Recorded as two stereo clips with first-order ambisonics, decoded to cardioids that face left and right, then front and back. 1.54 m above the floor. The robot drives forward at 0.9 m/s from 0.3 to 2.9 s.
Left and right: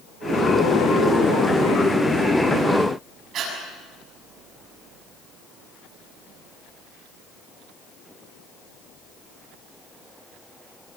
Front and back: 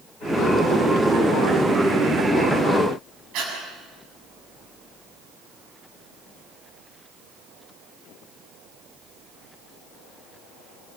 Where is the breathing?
145° right, 7 m.